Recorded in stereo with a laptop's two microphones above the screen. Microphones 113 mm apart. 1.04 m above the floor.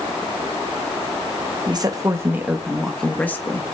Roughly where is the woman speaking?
Right.